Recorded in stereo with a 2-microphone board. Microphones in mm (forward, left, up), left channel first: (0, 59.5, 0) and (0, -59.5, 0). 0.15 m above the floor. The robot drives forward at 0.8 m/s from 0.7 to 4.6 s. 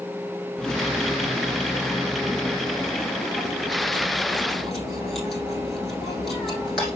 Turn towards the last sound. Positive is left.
turn(degrees=0)  # may be behind; listen again after turning